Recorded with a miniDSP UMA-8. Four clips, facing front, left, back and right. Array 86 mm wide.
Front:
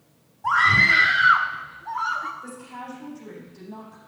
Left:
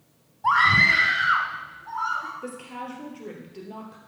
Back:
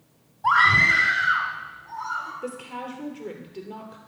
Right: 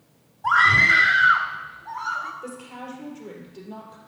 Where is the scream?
155° left, 1.0 m; by 2.3 s 5° left, 1.9 m.